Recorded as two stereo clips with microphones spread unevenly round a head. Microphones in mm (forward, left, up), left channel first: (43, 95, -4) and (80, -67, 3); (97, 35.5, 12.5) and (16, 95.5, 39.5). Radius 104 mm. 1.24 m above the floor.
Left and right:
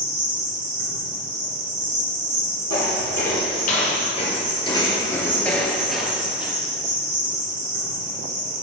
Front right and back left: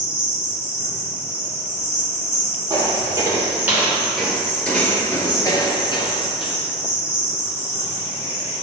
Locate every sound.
0.0 s an insect: 90° right, 1.7 m
2.7 s footsteps: 120° left, 1.9 m; by 6.5 s straight ahead, 1.8 m